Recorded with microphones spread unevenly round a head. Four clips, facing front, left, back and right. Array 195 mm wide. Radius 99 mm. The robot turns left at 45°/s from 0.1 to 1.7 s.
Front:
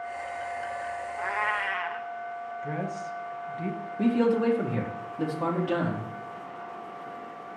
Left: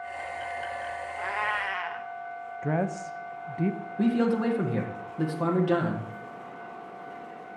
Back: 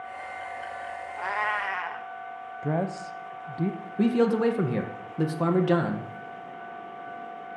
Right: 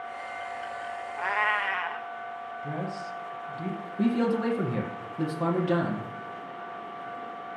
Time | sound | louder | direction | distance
1.2 | a cat meowing | right 3 dB, back 1 dB | 160° right | 0.6 m
2.6 | a woman speaking | left 7 dB, back 6 dB | 140° left | 0.7 m
4.0 | a man speaking | left 1 dB, back 1 dB | 175° left | 1.6 m